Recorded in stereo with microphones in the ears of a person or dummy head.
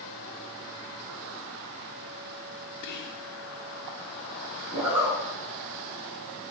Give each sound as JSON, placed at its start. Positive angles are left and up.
{"t": 2.8, "sound": "whispering", "side_deg": 60, "distance_m": 1.2}
{"t": 4.7, "sound": "a zipper", "side_deg": -15, "distance_m": 5.0}